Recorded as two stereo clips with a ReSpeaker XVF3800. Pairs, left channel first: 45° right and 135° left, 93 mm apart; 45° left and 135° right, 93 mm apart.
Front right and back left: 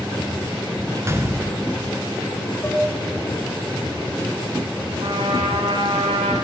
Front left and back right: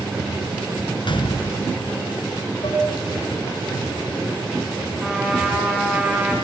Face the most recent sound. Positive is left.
turn(degrees=145)